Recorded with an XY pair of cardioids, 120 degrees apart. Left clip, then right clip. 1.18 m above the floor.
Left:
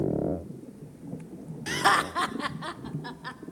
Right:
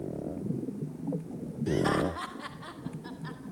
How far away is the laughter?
About 1.4 m.